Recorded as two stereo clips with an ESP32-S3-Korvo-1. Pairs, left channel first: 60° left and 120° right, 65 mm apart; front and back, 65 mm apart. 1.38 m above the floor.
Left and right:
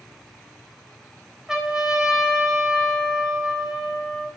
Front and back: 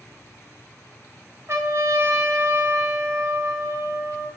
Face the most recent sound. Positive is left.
turn(degrees=160)